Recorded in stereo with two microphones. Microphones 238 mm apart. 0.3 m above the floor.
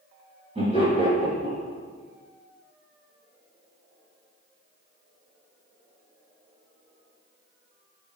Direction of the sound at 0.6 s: 25° right (ahead or behind).